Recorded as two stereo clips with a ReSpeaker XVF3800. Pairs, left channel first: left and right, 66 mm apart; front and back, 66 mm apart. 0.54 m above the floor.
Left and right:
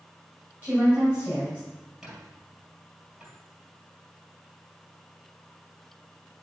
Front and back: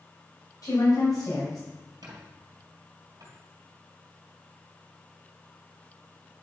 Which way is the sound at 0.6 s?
25° right.